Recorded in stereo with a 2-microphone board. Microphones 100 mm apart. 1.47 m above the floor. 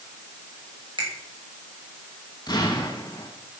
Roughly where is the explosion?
Left.